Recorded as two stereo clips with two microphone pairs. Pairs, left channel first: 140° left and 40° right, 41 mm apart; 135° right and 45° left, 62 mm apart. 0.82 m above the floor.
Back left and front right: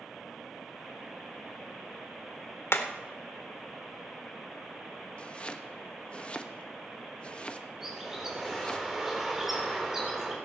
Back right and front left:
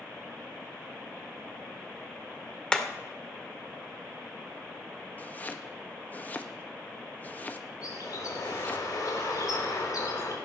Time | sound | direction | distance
2.7 | hammering | 150° left | 1.4 m
5.2 | chopping | straight behind | 1.0 m
7.8 | a bird | 120° right | 3.5 m